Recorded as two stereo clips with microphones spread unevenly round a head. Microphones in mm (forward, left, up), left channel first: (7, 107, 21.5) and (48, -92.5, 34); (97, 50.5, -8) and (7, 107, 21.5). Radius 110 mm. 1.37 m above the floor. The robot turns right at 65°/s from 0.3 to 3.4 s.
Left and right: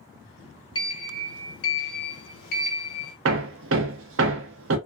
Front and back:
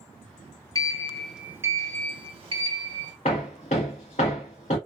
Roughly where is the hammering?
Right.